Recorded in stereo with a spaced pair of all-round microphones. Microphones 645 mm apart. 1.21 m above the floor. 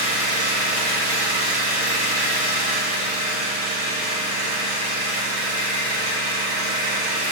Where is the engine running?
20° right (ahead or behind), 2.5 m.